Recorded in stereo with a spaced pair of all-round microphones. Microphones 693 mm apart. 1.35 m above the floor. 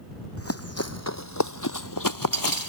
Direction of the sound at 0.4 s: 20° left (ahead or behind).